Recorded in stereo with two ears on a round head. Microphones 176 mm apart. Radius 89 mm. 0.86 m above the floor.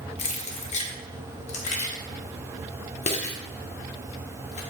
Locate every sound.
0.2 s keys jangling: 35° left (ahead or behind), 1.1 m